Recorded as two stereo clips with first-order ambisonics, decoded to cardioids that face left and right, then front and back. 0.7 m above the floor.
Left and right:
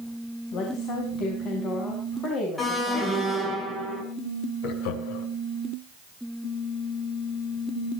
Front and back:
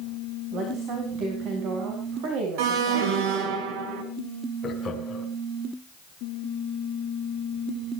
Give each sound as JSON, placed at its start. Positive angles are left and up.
{"t": 0.5, "sound": "a woman speaking", "azimuth_deg": 135, "distance_m": 5.5}
{"t": 2.6, "sound": "an alarm", "azimuth_deg": 170, "distance_m": 4.5}
{"t": 4.6, "sound": "laughter", "azimuth_deg": 80, "distance_m": 5.0}